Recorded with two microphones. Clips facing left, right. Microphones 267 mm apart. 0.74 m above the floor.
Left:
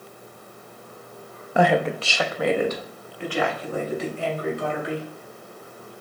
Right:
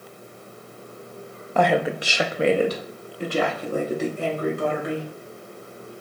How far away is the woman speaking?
About 0.5 m.